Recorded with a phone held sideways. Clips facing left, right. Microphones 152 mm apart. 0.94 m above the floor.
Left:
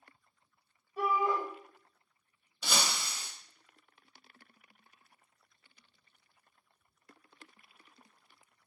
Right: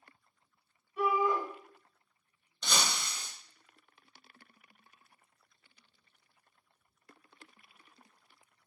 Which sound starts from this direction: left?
A shout, at 1.0 s.